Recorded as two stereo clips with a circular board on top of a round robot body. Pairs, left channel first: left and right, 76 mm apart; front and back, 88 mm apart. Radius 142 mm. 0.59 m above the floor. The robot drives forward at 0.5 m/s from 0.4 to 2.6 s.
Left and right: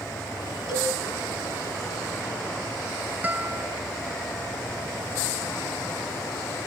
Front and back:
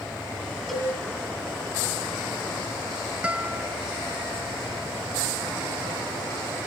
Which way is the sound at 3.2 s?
120° right.